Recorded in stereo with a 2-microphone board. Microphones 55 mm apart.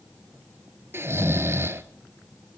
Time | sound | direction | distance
0.9 | snoring | 45° right (ahead or behind) | 1.2 m